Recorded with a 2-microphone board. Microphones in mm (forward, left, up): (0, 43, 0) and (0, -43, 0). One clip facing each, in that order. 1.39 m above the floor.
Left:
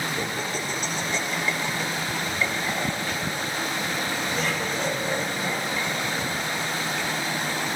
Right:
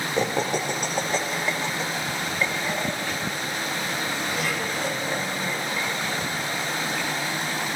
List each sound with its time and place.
0.2 s laughter: 80° right, 0.8 m; by 7.7 s 5° right (ahead or behind), 6.5 m